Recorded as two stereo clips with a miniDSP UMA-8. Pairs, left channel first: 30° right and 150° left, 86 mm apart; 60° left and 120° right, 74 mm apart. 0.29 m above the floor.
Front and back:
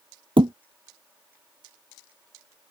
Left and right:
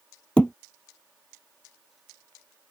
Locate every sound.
0.4 s a thud: 140° left